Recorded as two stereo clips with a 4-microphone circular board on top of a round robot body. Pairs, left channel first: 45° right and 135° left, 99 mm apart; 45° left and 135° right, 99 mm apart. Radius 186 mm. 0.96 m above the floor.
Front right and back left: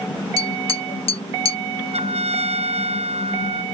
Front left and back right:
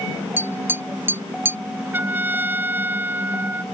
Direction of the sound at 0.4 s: 65° right.